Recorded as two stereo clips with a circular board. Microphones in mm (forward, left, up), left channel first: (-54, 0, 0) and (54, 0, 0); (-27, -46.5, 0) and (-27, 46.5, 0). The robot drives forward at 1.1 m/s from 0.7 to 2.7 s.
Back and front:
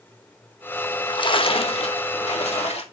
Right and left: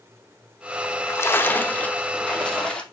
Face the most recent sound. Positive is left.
turn(degrees=-170)